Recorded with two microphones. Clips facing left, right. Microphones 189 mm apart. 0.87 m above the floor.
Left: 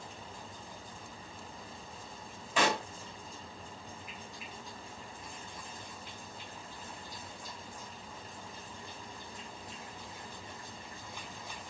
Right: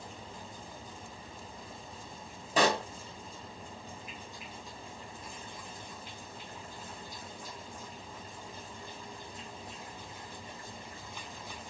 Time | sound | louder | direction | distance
2.6 | a pop | right 3 dB | 35° right (ahead or behind) | 1.1 m